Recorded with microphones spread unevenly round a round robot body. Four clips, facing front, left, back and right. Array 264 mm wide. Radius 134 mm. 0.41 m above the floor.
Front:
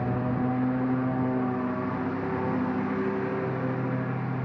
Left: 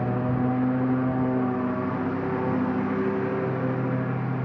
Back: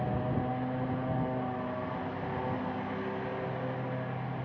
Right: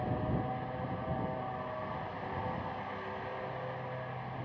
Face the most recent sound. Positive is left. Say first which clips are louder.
# left 10 dB, front 5 dB
turn(degrees=60)